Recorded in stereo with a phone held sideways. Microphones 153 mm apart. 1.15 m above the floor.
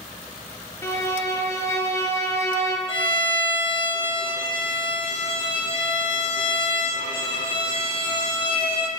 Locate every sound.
0.8 s a violin: 20° left (ahead or behind), 0.9 m
2.9 s a violin: 35° left (ahead or behind), 1.0 m